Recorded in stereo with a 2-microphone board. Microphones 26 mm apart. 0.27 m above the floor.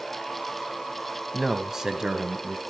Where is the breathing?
No breathing in this recording.